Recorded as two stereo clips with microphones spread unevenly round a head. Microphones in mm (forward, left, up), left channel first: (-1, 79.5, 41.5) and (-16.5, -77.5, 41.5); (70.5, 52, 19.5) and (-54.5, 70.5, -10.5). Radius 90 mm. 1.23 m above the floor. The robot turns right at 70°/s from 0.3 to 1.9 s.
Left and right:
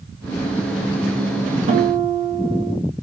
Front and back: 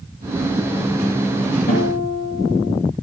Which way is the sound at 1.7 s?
45° right.